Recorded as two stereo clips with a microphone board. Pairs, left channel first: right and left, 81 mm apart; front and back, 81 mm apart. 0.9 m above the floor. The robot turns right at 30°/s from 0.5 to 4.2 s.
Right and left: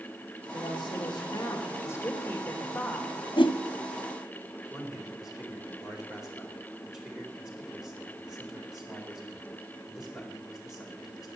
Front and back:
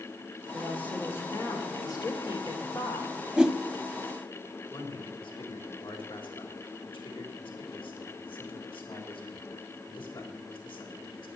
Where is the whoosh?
95° right, 0.8 m; by 3.6 s 90° right, 0.8 m.